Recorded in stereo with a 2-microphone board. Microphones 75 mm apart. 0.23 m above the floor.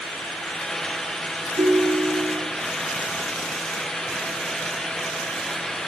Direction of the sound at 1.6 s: 65° right (ahead or behind).